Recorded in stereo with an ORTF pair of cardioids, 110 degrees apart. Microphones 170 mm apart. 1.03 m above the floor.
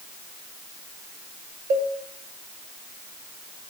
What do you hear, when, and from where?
1.7 s a cowbell: 70° right, 2.5 m